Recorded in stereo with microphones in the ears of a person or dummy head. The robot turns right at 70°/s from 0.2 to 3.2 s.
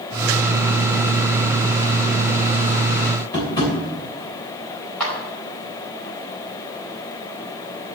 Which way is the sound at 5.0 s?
10° left (ahead or behind).